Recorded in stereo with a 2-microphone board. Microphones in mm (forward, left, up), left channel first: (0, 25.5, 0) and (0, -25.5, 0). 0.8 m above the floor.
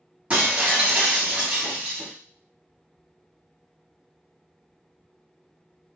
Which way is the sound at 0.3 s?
25° right (ahead or behind).